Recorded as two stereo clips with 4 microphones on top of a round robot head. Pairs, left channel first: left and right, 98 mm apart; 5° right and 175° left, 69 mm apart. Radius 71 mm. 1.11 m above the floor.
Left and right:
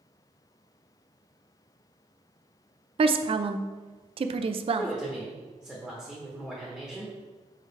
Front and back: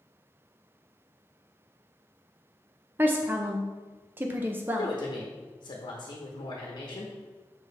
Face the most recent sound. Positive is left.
turn(degrees=5)